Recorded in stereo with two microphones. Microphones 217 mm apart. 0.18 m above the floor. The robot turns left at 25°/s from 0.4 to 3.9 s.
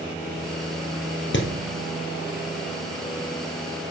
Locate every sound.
1.3 s hammering: 60° left (ahead or behind), 1.9 m; by 1.5 s 65° left (ahead or behind), 1.9 m